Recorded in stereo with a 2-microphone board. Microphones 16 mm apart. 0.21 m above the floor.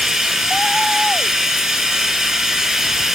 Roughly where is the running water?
Right.